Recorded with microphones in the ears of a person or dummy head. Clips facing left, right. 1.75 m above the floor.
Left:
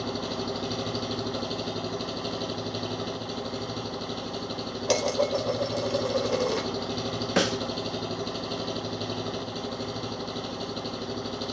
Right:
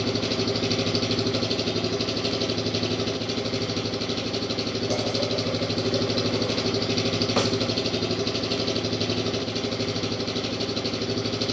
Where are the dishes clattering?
80° left, 5 m.